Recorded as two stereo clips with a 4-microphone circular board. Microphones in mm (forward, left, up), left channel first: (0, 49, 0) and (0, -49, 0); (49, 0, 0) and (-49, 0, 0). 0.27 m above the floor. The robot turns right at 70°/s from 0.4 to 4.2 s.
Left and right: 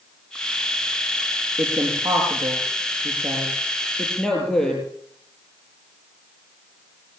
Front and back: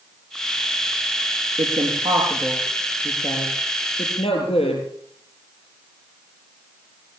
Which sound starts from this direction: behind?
A woman speaking, at 1.6 s.